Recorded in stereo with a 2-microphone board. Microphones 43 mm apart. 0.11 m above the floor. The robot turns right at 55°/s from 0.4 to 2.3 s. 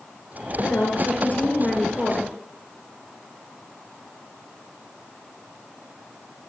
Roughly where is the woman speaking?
Left.